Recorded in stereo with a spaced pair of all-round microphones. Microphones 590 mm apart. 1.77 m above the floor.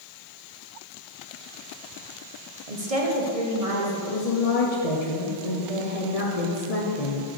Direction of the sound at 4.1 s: 80° left.